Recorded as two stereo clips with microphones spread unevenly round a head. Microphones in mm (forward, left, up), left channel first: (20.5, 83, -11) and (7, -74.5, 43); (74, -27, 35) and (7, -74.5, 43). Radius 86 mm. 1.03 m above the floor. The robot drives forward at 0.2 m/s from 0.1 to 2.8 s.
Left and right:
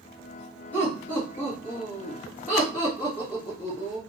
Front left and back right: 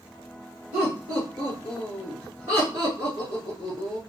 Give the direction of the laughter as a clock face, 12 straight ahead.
7 o'clock.